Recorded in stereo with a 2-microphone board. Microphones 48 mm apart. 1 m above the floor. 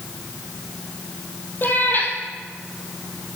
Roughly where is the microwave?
I don't hear a microwave.